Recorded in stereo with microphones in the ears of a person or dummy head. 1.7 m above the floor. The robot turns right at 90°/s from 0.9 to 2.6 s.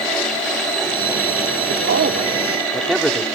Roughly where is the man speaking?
Right.